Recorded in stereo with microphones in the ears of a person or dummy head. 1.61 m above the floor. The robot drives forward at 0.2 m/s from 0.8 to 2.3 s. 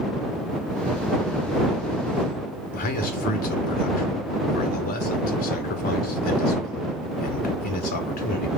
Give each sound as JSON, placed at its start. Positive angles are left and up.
{"t": 2.7, "sound": "a man speaking", "side_deg": 50, "distance_m": 0.9}